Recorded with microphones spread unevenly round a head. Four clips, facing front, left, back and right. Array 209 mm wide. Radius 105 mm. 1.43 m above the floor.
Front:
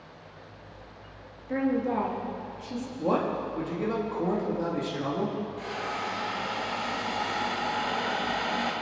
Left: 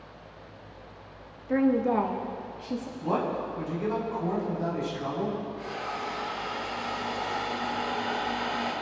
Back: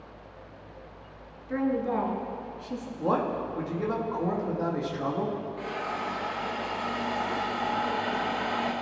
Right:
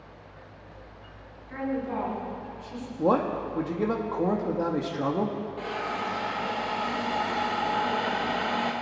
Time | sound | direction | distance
1.5 | a woman speaking | 85° left | 2.5 m
3.0 | a man speaking | 90° right | 2 m
5.6 | a hiss | 105° right | 2.5 m